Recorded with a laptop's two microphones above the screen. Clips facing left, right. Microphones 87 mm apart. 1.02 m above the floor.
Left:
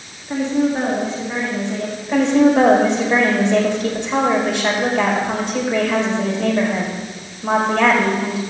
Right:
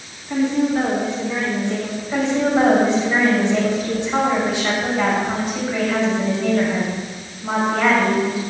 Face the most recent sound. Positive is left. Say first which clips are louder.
# left 5 dB
turn(degrees=75)  # may be behind; listen again after turning